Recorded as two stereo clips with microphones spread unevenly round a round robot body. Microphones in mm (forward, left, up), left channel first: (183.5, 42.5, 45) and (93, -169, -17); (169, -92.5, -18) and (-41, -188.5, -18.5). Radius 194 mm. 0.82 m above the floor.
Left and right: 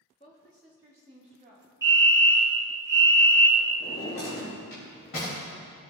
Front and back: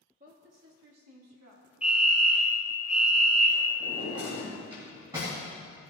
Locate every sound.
0.2 s a woman speaking: 145° left, 0.8 m; by 1.7 s 170° right, 1.7 m
1.8 s a fire alarm: 75° right, 1.5 m
3.8 s a drawer: 125° left, 3 m